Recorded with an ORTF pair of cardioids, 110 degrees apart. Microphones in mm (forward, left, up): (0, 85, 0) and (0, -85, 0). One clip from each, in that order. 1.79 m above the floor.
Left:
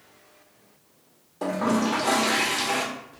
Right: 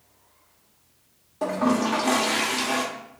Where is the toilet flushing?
5° right, 0.6 m.